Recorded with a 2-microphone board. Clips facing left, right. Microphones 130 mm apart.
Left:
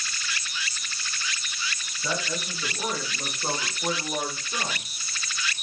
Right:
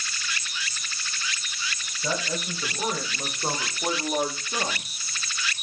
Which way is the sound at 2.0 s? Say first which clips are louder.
Right 1 dB; 15° right (ahead or behind).